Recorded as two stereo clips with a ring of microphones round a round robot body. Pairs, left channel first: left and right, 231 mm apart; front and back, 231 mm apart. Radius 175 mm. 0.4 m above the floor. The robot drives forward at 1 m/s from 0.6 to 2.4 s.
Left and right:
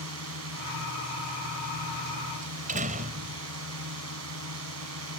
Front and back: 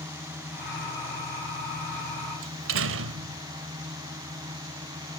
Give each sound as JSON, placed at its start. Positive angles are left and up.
{"t": 0.0, "sound": "a drone", "azimuth_deg": -100}
{"t": 2.4, "sound": "a door slam", "azimuth_deg": -150}